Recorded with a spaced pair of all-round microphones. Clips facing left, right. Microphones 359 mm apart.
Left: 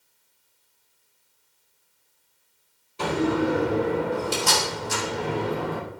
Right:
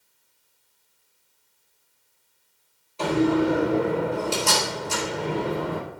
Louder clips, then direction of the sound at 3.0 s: Right 3 dB; 30° left (ahead or behind).